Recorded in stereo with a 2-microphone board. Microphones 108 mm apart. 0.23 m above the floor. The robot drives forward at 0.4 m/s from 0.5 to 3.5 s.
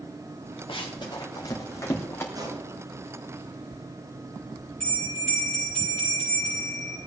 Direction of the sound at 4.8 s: 5° left (ahead or behind).